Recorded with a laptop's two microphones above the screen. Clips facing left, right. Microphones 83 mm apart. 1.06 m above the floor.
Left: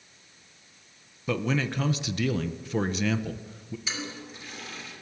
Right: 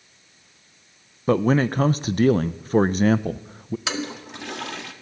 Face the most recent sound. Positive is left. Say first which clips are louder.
# right 7 dB
turn(degrees=-80)